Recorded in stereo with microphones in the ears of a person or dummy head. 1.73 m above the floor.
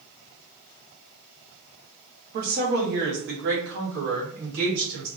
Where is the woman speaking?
40° right (ahead or behind), 1.0 m; by 5.1 s 75° right (ahead or behind), 2.5 m.